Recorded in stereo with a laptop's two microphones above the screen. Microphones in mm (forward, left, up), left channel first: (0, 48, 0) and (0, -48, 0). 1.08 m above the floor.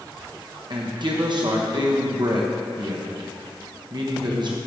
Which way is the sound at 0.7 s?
50° right (ahead or behind).